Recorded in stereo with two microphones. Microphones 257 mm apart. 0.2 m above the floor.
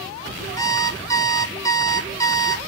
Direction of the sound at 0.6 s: 15° left (ahead or behind).